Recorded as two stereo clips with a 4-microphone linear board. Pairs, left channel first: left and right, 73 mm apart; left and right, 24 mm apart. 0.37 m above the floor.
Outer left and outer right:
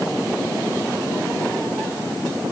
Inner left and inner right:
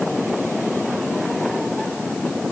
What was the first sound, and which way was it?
Only background noise.